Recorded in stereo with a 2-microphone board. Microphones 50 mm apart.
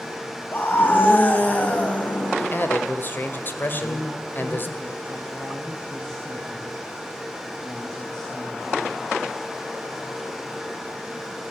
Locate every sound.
0.5 s a scream: 40° left (ahead or behind), 2.5 m; by 2.7 s 25° left (ahead or behind), 3.5 m
2.4 s a man speaking: 40° left (ahead or behind), 1.9 m
3.7 s a woman speaking: 10° left (ahead or behind), 3.5 m